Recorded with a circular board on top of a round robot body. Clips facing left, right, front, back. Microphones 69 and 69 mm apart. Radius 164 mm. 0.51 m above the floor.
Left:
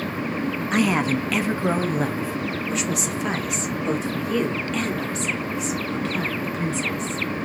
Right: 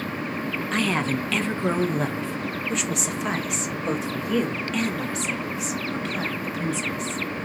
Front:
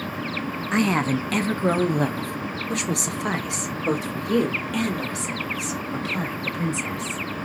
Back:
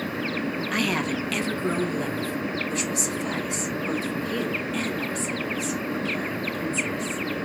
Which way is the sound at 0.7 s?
30° left.